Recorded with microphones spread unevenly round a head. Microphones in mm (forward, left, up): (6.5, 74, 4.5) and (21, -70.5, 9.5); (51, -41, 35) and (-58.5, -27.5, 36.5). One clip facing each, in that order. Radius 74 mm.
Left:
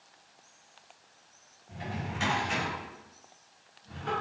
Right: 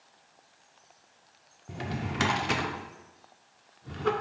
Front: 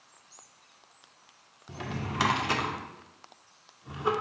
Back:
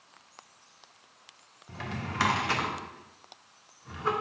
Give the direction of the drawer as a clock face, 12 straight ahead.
3 o'clock.